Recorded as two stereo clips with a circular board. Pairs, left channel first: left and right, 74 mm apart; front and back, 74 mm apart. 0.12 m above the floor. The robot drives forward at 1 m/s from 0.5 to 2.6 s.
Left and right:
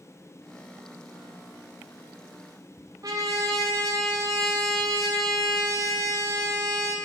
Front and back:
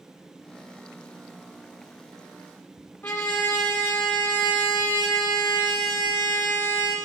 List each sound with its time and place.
3.0 s a trumpet: 65° right, 2 m